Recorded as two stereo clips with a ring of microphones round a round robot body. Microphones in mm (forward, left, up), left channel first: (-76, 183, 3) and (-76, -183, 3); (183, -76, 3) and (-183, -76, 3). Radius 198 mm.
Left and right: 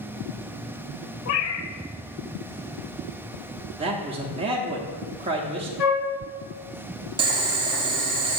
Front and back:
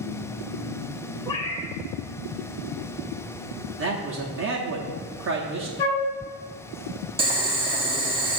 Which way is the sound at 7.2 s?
135° right.